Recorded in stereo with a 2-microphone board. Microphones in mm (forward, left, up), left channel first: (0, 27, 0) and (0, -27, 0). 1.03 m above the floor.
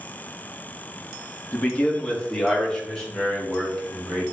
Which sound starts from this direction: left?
A man speaking, at 1.5 s.